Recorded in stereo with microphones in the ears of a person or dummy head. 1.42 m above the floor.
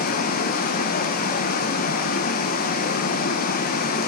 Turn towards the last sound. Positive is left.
turn(degrees=50)  # may be behind; listen again after turning